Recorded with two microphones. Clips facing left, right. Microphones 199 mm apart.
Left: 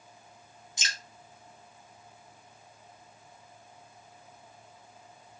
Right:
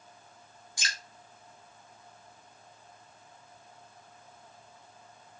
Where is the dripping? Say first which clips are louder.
Right 1 dB; 20° left (ahead or behind), 0.7 m.